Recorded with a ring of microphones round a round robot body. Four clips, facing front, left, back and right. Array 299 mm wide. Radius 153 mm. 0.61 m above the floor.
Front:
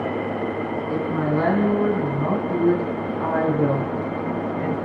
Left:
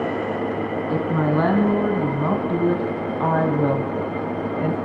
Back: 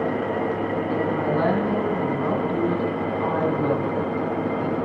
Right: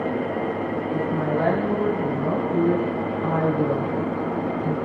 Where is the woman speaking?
85° left, 5 m; by 4.8 s 75° left, 3 m.